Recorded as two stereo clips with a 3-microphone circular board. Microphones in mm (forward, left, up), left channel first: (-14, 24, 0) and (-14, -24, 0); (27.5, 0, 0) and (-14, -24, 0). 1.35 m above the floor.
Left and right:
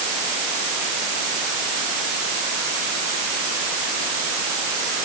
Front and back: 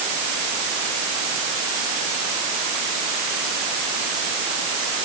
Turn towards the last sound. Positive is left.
No sound to turn to.